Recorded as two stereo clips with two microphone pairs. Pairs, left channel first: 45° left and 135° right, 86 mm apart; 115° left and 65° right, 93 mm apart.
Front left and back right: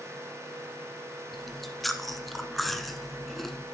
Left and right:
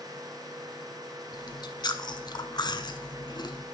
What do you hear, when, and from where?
1.3 s chewing: 135° left, 0.8 m